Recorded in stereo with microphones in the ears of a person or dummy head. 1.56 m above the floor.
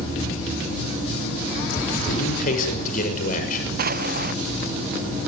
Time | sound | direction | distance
2.1 | a man speaking | 50° left (ahead or behind) | 6.5 m
3.8 | an explosion | 50° right (ahead or behind) | 0.7 m